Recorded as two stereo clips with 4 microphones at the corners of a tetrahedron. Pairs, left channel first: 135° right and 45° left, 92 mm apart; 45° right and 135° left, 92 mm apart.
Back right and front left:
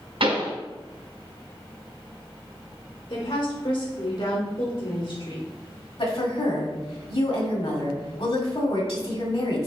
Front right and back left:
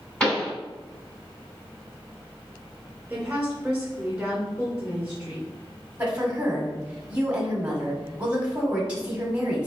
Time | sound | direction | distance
0.2 | a pop | 40° left | 1.8 m
3.1 | a woman speaking | 145° right | 2 m
6.0 | a woman speaking | 150° right | 1.6 m